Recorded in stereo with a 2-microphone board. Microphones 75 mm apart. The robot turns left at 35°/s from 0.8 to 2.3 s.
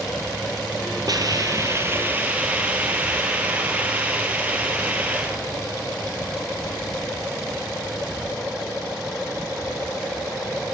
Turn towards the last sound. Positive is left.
turn(degrees=-160)